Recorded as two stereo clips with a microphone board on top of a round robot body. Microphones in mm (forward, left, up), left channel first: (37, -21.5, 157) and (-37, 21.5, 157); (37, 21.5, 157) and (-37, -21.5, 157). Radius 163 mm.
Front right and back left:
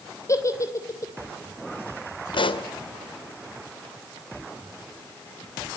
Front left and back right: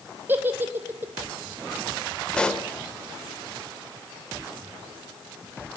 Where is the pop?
50° right, 2 m.